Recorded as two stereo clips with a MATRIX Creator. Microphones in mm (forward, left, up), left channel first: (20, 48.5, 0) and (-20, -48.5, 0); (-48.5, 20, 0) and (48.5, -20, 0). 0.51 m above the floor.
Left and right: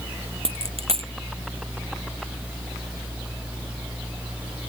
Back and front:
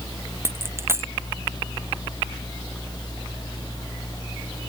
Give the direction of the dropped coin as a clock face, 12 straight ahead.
3 o'clock.